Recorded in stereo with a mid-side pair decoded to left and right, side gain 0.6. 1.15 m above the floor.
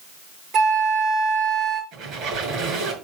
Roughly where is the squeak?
Ahead right.